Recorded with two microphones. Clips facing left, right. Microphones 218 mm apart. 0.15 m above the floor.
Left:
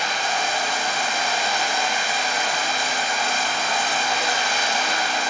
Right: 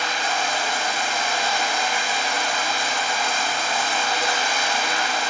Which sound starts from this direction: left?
Running water, at 0.0 s.